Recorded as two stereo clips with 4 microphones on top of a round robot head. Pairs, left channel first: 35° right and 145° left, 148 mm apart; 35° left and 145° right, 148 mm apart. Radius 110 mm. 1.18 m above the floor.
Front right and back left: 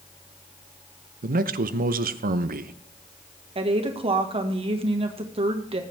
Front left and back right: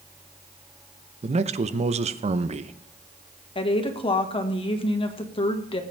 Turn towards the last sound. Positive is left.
turn(degrees=90)